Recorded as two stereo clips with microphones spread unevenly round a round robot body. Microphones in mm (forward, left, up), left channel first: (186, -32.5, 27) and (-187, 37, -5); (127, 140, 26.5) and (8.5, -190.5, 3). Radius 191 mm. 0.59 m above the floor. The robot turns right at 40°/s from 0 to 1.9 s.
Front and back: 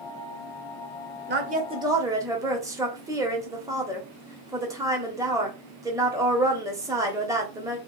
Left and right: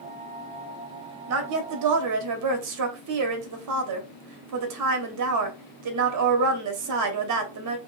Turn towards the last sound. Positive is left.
turn(degrees=-115)